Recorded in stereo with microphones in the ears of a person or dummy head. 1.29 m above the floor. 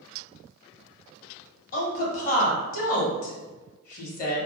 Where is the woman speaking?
45° left (ahead or behind), 0.8 m.